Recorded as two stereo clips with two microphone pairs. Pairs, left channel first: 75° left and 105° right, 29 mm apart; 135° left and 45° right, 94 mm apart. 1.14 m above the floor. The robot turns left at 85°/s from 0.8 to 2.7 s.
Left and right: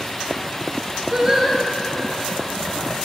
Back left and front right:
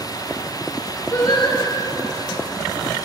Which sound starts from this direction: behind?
Singing, at 1.1 s.